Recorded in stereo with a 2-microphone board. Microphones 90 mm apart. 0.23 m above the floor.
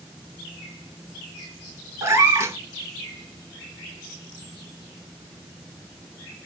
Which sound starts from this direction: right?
A cat meowing, at 2.0 s.